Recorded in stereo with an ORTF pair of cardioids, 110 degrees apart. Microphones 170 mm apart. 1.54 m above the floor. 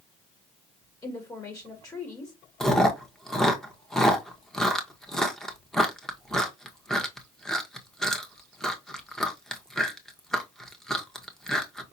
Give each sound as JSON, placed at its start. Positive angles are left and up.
{"t": 1.0, "sound": "a woman speaking", "azimuth_deg": 20, "distance_m": 1.9}
{"t": 2.6, "sound": "chewing", "azimuth_deg": 5, "distance_m": 1.1}